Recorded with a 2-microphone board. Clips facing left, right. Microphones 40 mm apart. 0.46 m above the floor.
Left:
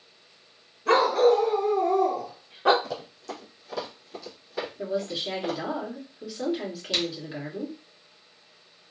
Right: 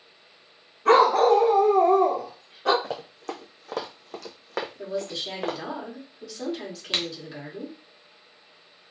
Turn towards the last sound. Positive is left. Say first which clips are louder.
# even
turn(degrees=-45)  # may be behind; listen again after turning